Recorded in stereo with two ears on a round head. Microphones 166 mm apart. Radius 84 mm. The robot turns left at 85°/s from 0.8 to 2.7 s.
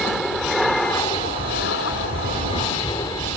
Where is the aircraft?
Straight behind; by 3.4 s 15° left.